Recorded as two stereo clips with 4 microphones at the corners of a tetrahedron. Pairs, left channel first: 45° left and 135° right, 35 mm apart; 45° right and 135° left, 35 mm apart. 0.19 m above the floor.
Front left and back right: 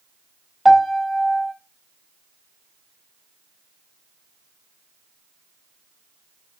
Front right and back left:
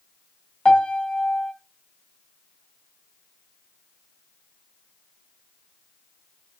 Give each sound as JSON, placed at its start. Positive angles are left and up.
{"t": 0.7, "sound": "a piano", "azimuth_deg": -45, "distance_m": 1.3}